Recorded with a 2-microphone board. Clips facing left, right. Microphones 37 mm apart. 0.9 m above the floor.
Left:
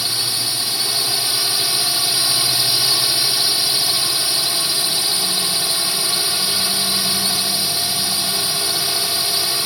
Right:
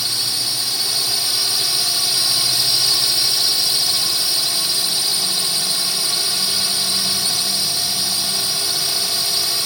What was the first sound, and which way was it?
A drone, 15° left (ahead or behind).